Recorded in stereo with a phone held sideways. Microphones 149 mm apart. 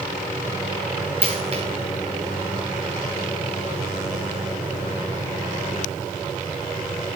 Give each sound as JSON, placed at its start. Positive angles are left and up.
{"t": 1.2, "sound": "a dropped coin", "side_deg": -45, "distance_m": 4.0}